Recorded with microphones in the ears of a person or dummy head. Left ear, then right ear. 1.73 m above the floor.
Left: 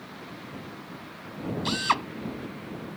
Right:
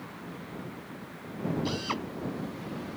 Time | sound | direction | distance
1.6 | a drill | 50° left (ahead or behind) | ?